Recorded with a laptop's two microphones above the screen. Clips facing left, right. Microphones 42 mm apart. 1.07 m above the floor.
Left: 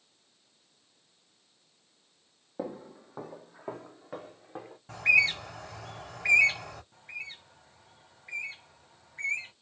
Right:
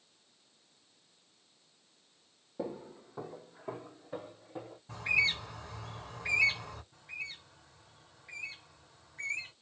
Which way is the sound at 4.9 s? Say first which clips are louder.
Left 6 dB; 70° left (ahead or behind).